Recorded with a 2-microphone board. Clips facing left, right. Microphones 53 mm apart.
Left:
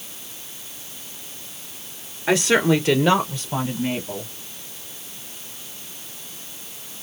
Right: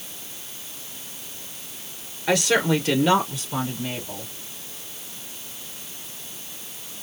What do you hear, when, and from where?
2.3 s a woman speaking: 20° left (ahead or behind), 1.8 m; by 4.3 s 40° left (ahead or behind), 4 m